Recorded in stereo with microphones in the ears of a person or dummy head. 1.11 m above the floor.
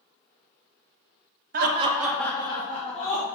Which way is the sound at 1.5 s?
45° right (ahead or behind).